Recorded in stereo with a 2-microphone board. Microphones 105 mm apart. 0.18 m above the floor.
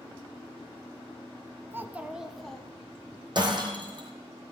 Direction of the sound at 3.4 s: 45° right (ahead or behind).